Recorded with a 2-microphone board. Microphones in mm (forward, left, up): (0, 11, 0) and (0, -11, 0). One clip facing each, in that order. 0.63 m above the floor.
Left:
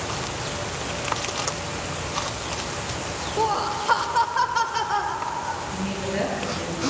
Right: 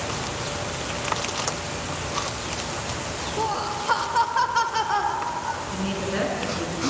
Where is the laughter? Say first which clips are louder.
Left 4 dB; 20° left (ahead or behind), 0.6 m; by 5.6 s 10° right (ahead or behind), 1.8 m.